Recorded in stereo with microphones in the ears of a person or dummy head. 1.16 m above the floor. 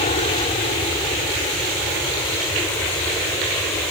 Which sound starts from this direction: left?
An aircraft, at 0.0 s.